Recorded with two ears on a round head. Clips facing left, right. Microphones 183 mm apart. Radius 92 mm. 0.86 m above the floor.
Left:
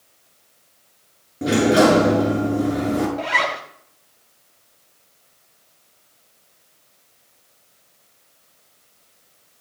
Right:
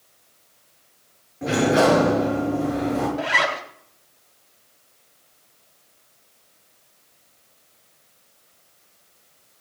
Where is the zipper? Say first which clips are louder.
Even; 5° right (ahead or behind), 3 m.